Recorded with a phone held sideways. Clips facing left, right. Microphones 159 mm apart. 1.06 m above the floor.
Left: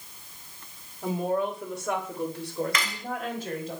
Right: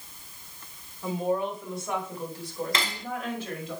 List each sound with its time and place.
1.0 s a woman speaking: 65° left (ahead or behind), 2.5 m; by 3.7 s 45° left (ahead or behind), 3.5 m
2.7 s cutlery clinking: 30° right (ahead or behind), 0.9 m